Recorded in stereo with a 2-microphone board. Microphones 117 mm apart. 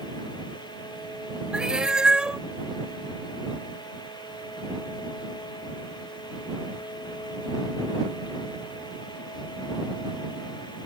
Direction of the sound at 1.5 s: 5° right (ahead or behind).